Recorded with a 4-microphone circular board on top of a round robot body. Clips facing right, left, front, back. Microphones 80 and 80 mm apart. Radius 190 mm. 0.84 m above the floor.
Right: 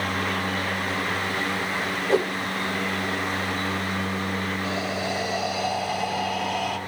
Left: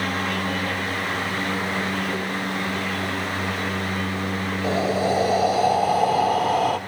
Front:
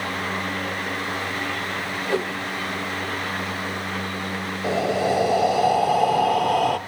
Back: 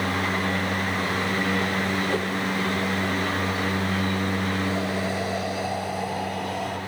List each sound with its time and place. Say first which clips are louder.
2.1 s a whoosh: right 5 dB, front 2 dB; 70° right, 1.1 m
4.6 s breathing: left 6 dB, front 5 dB; 35° left, 0.9 m